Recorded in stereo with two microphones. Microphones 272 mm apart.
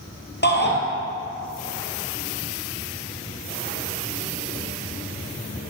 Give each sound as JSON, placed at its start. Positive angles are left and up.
{"t": 0.4, "sound": "a shout", "side_deg": 40, "distance_m": 2.5}